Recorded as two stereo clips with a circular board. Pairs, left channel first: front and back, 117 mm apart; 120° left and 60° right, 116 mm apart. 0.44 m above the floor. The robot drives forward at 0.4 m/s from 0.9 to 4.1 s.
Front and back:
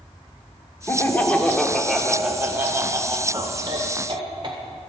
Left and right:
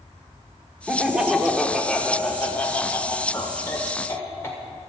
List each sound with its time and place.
0.9 s laughter: 10° left, 1.0 m; by 4.6 s 175° left, 1.3 m